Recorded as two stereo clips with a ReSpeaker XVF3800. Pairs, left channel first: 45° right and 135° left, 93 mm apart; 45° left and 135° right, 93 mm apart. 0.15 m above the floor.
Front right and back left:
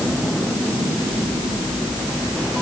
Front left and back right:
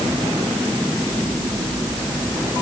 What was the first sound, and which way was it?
Only background noise.